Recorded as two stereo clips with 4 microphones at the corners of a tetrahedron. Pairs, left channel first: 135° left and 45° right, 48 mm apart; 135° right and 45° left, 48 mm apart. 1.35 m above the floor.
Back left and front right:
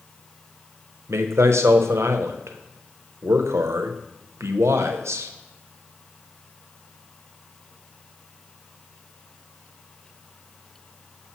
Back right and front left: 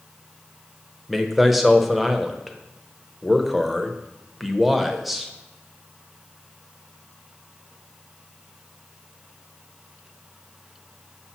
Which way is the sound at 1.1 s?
45° right.